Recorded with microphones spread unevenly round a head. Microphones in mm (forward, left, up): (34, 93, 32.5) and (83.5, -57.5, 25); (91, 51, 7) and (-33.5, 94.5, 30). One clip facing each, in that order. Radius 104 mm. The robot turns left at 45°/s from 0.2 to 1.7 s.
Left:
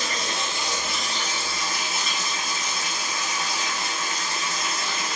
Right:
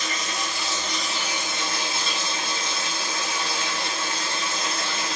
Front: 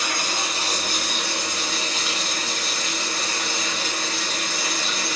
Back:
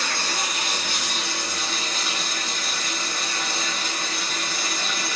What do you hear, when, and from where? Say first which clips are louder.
0.0 s running water: left 1 dB, front 1 dB; 55° left, 4.5 m; by 5.2 s 10° right, 4.5 m